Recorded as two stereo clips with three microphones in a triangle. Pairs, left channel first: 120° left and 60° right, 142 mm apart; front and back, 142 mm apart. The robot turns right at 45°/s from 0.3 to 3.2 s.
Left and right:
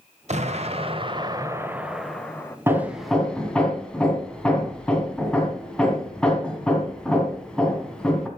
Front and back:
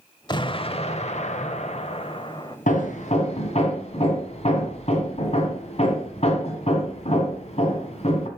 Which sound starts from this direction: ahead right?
An explosion, at 0.3 s.